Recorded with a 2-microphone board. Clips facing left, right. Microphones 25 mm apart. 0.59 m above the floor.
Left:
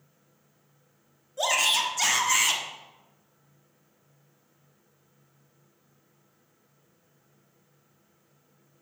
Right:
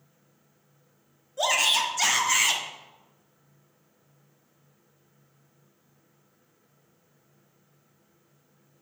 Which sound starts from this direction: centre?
A shout, at 1.4 s.